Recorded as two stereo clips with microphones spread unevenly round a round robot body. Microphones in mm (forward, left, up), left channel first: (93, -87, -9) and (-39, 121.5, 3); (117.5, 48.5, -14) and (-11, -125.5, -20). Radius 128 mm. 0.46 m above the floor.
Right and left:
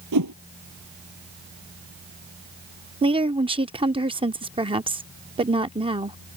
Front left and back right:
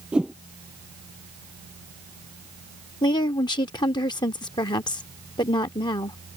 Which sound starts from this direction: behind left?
A whoosh, at 0.1 s.